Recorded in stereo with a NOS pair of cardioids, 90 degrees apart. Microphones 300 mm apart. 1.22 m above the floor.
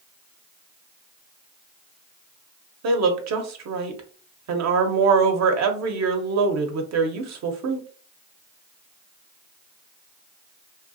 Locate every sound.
2.8 s a woman speaking: 65° right, 0.8 m